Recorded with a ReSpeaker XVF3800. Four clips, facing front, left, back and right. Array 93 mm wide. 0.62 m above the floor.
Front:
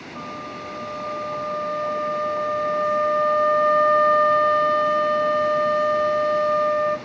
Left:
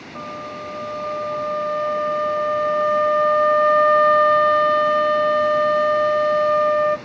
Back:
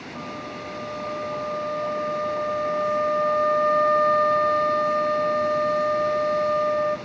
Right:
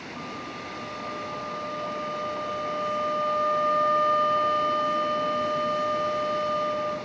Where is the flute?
90° left, 0.5 m.